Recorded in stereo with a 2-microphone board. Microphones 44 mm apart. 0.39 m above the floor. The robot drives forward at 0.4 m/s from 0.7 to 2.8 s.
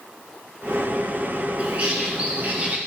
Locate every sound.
1.6 s a bird: 30° right (ahead or behind), 2.5 m; by 2.8 s 35° right (ahead or behind), 2 m